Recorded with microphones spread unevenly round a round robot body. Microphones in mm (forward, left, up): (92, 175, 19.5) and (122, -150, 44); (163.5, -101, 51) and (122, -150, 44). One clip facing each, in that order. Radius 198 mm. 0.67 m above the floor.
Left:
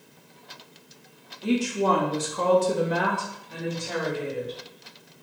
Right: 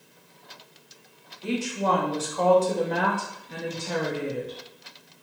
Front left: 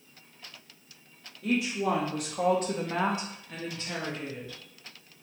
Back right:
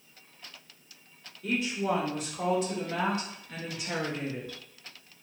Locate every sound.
1.4 s a woman speaking: 55° left, 1.1 m; by 4.6 s 100° right, 0.8 m